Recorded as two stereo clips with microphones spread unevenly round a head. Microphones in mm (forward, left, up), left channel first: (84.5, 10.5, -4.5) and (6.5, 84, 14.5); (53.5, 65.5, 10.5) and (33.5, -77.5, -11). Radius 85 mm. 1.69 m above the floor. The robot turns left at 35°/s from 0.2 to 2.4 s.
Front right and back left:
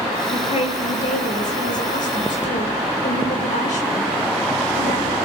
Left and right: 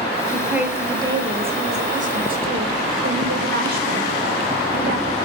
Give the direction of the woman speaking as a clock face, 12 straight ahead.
12 o'clock.